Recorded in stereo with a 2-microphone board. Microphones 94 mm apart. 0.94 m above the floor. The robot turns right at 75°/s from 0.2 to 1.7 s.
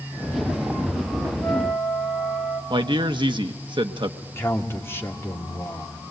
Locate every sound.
1.4 s a flute: 25° left (ahead or behind), 3.5 m; by 2.6 s 5° left (ahead or behind), 3.5 m
2.7 s a man speaking: 55° right (ahead or behind), 0.9 m
4.2 s a man speaking: 25° left (ahead or behind), 2.5 m